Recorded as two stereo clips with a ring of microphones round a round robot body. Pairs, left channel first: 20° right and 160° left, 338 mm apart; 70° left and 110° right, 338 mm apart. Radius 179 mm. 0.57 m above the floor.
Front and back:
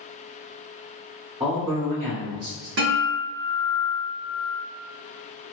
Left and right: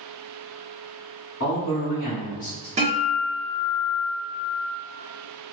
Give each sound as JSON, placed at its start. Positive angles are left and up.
{"t": 1.4, "sound": "a man speaking", "azimuth_deg": 90, "distance_m": 1.9}
{"t": 2.8, "sound": "a guitar", "azimuth_deg": -175, "distance_m": 1.1}